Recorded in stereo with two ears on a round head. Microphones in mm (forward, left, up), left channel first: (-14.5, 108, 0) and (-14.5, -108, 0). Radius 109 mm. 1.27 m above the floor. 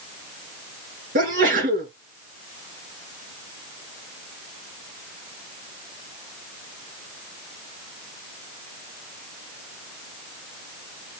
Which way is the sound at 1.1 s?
35° right (ahead or behind).